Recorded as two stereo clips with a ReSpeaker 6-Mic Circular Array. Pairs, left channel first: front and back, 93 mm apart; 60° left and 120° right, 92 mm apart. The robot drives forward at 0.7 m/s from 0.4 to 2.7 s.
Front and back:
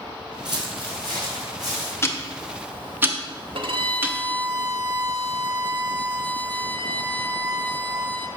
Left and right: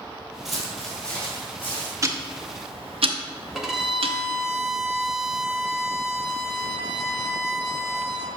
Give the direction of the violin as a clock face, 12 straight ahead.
7 o'clock.